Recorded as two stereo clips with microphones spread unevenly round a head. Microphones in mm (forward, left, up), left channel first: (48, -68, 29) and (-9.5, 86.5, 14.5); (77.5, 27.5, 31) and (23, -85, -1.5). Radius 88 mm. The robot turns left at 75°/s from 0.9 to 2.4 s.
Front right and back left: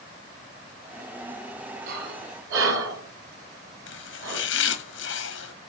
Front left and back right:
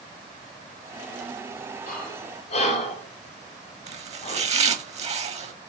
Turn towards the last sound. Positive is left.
turn(degrees=-90)